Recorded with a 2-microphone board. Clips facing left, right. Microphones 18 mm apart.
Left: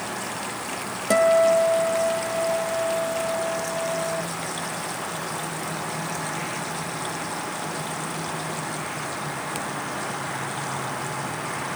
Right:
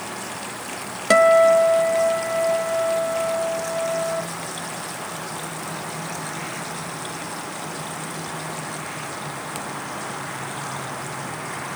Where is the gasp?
I don't hear a gasp.